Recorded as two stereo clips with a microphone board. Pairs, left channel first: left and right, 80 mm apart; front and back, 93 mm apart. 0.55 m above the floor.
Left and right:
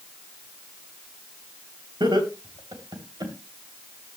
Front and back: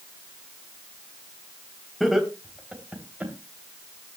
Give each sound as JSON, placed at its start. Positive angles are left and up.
{"t": 2.0, "sound": "laughter", "azimuth_deg": -90, "distance_m": 3.0}